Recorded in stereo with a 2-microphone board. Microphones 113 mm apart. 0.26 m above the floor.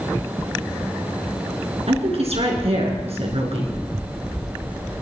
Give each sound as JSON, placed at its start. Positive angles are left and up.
{"t": 1.9, "sound": "a woman speaking", "side_deg": -65, "distance_m": 3.5}